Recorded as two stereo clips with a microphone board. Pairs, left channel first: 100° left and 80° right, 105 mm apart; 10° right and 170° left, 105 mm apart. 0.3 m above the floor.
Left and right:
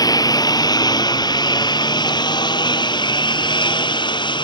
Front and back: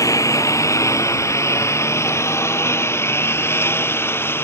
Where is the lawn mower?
50° left; by 4.4 s 55° left.